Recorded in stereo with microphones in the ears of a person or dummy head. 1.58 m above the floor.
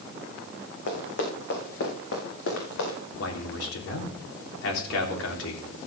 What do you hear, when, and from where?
0.9 s running footsteps: 55° left (ahead or behind), 4.5 m; by 3.0 s 70° left (ahead or behind), 6 m
3.2 s a man speaking: 75° left (ahead or behind), 3.5 m